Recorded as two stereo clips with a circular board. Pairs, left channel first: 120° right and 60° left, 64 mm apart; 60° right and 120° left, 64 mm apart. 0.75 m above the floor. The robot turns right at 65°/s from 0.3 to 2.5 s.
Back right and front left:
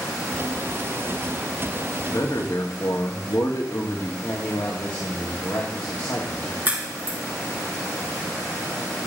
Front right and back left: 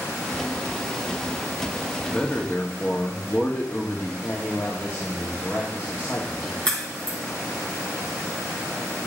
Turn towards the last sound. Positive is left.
turn(degrees=5)